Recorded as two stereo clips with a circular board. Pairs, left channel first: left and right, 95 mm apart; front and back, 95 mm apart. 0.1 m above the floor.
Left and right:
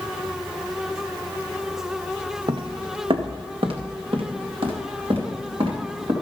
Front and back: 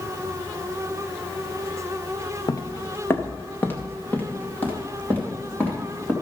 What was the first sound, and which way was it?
Footsteps, 55° right.